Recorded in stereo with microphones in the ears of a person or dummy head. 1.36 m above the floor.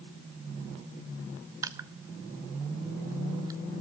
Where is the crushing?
20° right (ahead or behind), 0.6 m.